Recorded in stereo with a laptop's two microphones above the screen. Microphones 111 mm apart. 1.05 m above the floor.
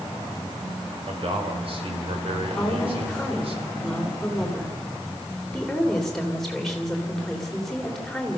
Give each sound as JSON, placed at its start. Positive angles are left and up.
{"t": 1.1, "sound": "a man speaking", "side_deg": -55, "distance_m": 3.5}
{"t": 2.6, "sound": "a woman speaking", "side_deg": 5, "distance_m": 3.0}